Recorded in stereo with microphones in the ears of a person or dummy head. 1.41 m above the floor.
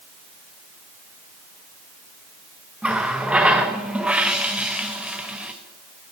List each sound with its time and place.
2.8 s a running tap: 5° right (ahead or behind), 0.8 m